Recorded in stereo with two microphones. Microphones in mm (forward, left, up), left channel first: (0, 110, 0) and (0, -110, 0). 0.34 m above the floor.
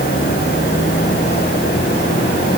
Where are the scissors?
No scissors in this recording.